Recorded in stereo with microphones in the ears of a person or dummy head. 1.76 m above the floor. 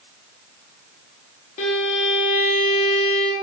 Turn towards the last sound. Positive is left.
turn(degrees=35)  # may be behind; listen again after turning